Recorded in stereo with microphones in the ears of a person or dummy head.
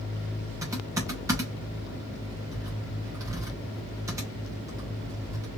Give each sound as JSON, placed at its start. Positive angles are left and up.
{"t": 0.6, "sound": "typing on a keyboard", "side_deg": -15, "distance_m": 1.3}